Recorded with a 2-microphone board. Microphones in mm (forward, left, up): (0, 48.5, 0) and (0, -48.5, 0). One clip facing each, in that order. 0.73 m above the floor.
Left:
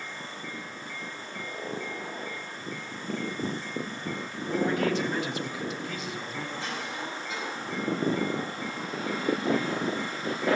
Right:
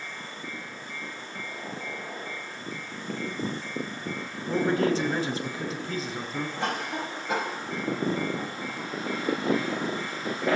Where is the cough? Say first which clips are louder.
Right 4 dB; 60° right (ahead or behind), 5.5 m.